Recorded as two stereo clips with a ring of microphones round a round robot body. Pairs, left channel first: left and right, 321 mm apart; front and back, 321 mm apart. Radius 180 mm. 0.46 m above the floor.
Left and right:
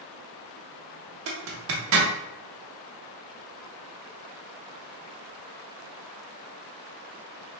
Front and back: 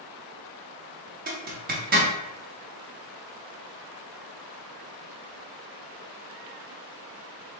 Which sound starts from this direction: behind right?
A zipper, at 1.3 s.